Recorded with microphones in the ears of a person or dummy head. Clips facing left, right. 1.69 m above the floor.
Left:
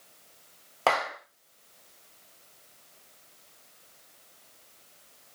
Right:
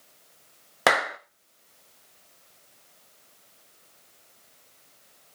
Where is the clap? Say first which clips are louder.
Right 3 dB; 25° right (ahead or behind), 0.5 m.